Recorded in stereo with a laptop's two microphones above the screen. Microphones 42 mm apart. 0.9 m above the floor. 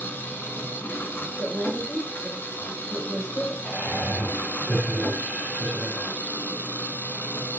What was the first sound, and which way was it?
An engine running, 50° left (ahead or behind).